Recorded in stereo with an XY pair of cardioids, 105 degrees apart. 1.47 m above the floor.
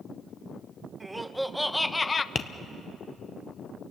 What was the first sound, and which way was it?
Laughter, 15° right.